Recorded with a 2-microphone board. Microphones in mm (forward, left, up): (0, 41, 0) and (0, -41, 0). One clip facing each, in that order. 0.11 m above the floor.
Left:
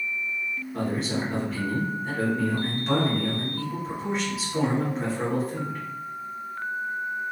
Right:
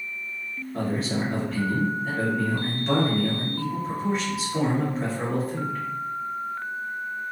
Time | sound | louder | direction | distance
0.7 | a man speaking | right 1 dB | centre (ahead or behind) | 1.4 m